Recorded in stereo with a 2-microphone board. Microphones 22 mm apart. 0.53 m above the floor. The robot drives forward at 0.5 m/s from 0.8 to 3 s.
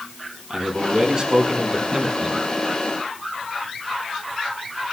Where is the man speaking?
40° right (ahead or behind), 5.5 m; by 2.4 s 35° right (ahead or behind), 6 m.